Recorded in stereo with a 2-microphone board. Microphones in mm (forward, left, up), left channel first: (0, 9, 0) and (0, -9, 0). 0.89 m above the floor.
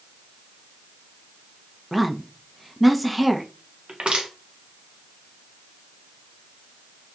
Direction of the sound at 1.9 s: Centre (ahead or behind).